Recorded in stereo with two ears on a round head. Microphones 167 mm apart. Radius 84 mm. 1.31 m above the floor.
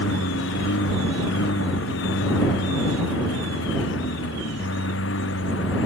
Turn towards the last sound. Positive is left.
turn(degrees=70)  # may be behind; listen again after turning